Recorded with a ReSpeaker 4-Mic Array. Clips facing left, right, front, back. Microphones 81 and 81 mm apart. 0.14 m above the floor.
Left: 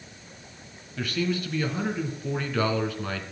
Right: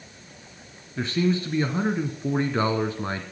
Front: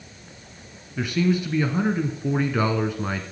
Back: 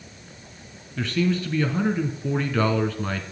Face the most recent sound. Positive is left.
turn(degrees=-65)